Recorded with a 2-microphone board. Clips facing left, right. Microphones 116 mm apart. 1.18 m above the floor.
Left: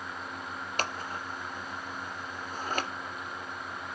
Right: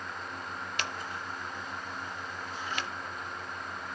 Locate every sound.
0.8 s scissors: 40° left (ahead or behind), 0.6 m